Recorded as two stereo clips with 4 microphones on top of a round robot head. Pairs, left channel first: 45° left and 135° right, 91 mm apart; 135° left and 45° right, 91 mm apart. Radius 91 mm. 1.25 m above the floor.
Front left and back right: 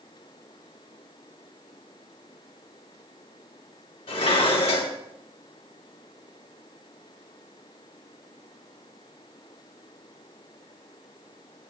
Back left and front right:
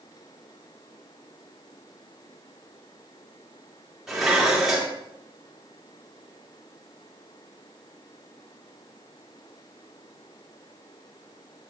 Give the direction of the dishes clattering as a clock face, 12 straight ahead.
11 o'clock.